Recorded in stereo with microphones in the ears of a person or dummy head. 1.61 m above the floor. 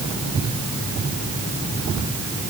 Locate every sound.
Only background noise.